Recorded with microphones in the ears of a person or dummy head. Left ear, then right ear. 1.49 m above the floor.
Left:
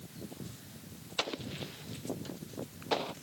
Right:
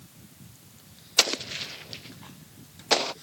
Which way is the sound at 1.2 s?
80° right.